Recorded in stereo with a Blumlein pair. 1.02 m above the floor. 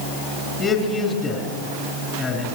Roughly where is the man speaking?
Ahead.